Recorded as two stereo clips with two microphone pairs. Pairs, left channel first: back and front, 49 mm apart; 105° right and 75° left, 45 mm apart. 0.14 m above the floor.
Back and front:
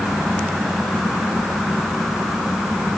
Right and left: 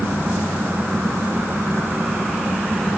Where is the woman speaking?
No woman speaking in this recording.